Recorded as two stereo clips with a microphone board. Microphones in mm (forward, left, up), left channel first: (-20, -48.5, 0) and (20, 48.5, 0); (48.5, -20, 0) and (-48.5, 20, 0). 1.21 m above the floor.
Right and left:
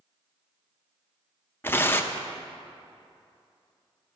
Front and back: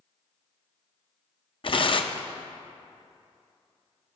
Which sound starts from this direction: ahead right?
Tearing paper, at 1.6 s.